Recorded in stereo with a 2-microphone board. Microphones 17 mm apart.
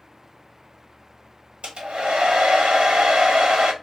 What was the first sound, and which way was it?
A hair dryer, 85° right.